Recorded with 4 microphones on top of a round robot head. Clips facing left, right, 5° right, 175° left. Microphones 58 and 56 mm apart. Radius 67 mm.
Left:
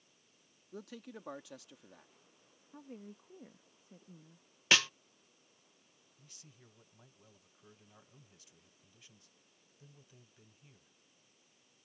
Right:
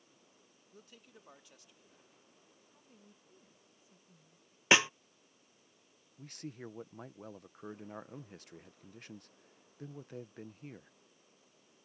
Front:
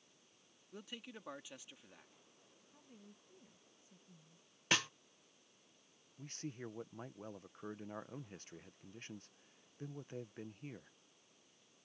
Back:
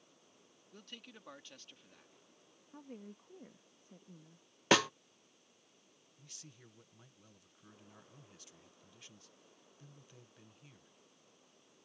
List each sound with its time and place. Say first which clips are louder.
0.7 s a man speaking: left 11 dB, front 3 dB; 75° left
2.7 s a woman speaking: left 15 dB, back 11 dB; 130° left
4.7 s a snare drum: right 3 dB, back 8 dB; 160° right
6.2 s a man speaking: right 18 dB, front 13 dB; 55° right